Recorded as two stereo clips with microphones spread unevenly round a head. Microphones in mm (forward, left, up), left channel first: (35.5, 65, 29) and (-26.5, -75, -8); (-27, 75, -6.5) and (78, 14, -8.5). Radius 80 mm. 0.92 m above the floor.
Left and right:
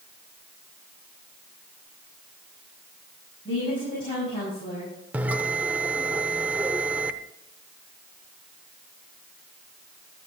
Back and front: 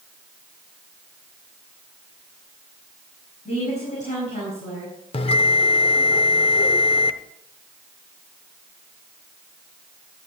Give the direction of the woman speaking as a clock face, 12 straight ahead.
8 o'clock.